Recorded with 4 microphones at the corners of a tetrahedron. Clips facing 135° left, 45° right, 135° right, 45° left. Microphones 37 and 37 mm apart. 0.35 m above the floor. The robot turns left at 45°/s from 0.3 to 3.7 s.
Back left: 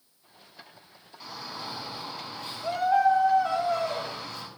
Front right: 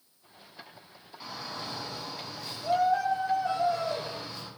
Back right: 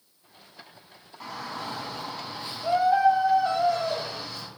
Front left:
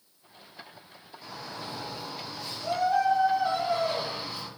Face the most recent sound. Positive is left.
turn(degrees=115)